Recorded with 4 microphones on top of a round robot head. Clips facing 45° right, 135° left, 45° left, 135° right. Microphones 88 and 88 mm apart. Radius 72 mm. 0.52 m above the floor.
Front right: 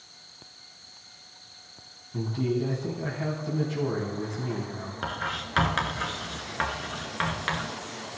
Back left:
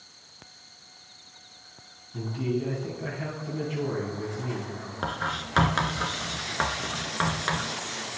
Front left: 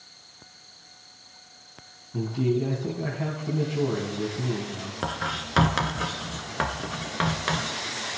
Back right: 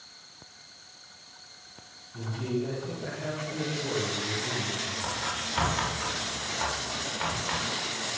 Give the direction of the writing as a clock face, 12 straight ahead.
10 o'clock.